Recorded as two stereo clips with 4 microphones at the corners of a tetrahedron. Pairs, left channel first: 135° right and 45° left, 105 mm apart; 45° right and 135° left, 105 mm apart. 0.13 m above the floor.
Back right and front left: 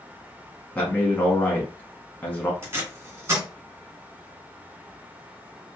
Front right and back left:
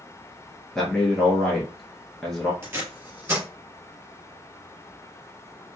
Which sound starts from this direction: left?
Tape being pulled, at 2.6 s.